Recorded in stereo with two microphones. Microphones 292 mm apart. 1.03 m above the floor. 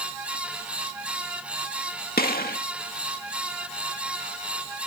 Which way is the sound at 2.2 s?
30° left (ahead or behind).